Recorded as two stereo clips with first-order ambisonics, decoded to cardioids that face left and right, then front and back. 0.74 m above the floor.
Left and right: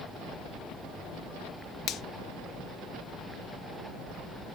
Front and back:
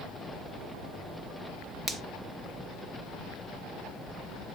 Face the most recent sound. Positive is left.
turn(degrees=120)